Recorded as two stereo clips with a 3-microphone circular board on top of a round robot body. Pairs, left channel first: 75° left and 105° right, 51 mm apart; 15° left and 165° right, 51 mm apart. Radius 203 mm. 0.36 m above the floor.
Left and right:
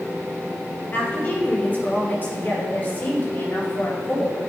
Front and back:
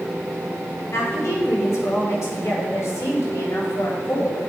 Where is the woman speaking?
25° left, 3 m.